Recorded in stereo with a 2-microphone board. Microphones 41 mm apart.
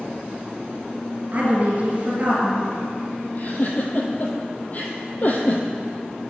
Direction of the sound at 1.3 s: 35° right (ahead or behind).